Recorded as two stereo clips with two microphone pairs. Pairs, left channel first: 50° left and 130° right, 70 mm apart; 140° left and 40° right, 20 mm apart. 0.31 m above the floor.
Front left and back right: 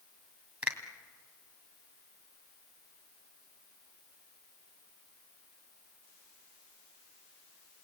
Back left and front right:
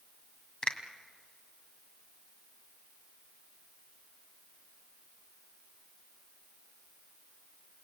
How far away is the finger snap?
About 2 m.